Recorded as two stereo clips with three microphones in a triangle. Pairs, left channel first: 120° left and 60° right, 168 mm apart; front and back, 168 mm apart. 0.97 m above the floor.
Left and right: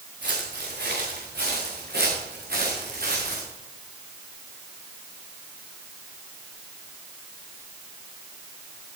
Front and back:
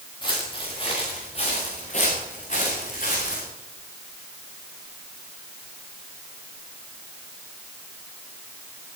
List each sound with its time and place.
0.2 s footsteps: 60° right, 6.5 m; by 3.5 s 30° right, 6 m